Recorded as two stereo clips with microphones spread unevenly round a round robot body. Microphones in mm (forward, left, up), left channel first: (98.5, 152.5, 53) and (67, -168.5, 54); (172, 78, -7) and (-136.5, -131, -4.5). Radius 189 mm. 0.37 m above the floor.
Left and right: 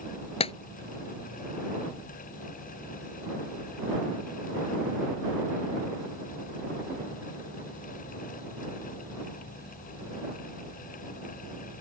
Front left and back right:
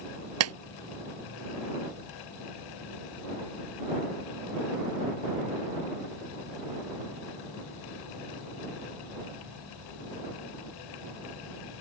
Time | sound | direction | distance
0.4 | a clap | 160° left | ?